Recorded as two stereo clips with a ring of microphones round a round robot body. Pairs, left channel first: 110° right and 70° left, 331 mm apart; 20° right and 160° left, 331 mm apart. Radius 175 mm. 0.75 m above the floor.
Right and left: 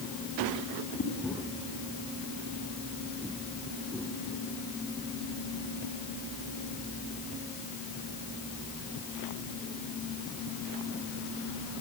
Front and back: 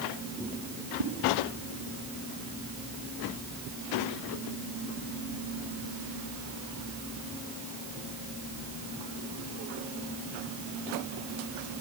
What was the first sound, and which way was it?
A whoosh, straight behind.